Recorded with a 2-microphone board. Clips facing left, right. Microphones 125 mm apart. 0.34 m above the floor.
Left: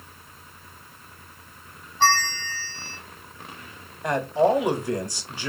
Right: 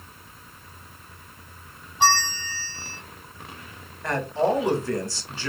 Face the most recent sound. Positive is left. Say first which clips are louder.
# left 3 dB
turn(degrees=15)  # may be behind; listen again after turning